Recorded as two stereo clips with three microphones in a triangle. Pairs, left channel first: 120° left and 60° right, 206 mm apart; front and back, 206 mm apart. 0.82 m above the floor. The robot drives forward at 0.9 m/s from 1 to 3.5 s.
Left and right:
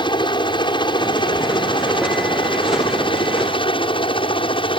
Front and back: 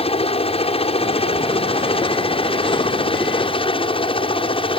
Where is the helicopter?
55° left; by 4.8 s 60° left.